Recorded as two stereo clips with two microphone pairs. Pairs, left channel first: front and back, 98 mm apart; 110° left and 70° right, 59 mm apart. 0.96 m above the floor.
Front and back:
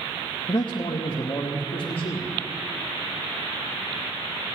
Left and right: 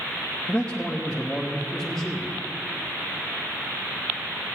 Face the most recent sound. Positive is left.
turn(degrees=15)